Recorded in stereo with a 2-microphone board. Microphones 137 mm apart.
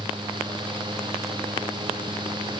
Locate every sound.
Only background noise.